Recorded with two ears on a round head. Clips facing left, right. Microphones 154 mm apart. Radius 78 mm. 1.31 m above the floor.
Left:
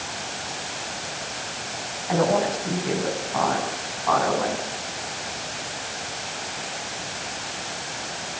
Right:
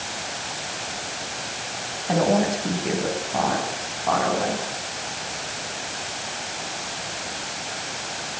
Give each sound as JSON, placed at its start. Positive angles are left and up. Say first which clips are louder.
{"t": 2.1, "sound": "a woman speaking", "louder": "right 1 dB", "side_deg": -35, "distance_m": 9.0}